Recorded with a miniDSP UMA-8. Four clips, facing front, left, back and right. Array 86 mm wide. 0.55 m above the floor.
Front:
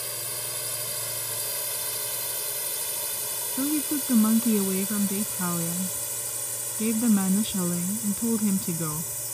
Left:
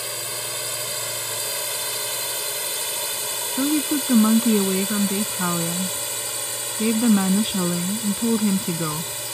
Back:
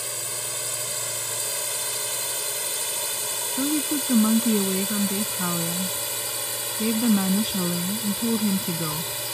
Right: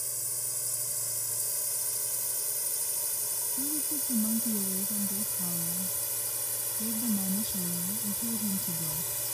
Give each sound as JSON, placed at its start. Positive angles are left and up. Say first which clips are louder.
{"t": 0.0, "sound": "a drone", "louder": "left 16 dB, back 3 dB", "azimuth_deg": 105}
{"t": 3.6, "sound": "a woman speaking", "louder": "left 17 dB, back 1 dB", "azimuth_deg": 100}